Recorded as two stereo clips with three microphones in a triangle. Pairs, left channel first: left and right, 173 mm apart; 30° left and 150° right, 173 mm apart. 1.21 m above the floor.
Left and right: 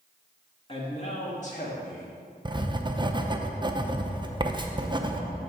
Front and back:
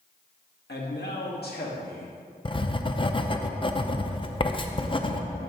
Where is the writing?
30° right, 0.5 m.